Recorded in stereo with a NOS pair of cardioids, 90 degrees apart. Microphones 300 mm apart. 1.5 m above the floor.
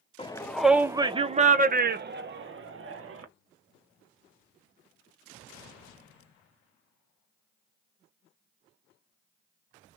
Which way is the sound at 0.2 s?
15° left.